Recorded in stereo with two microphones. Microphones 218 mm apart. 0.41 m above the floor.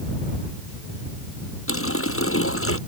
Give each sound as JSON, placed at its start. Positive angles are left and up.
{"t": 1.7, "sound": "a running tap", "side_deg": 80}